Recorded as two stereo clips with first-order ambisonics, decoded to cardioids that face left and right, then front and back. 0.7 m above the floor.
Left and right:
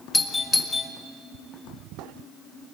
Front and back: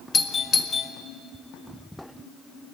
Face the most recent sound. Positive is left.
turn(degrees=25)